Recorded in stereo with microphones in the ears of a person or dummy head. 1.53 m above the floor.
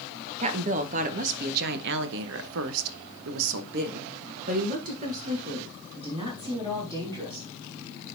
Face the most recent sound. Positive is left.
turn(degrees=-25)  # may be behind; listen again after turning